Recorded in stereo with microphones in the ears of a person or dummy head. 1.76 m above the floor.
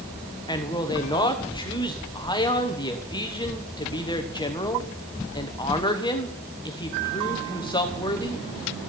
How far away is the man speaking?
About 1.2 m.